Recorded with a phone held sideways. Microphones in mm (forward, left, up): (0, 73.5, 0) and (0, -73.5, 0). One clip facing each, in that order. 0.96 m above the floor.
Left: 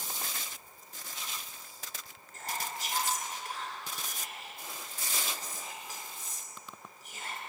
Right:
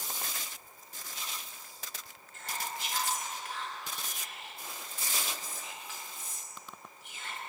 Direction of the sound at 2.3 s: 40° left (ahead or behind).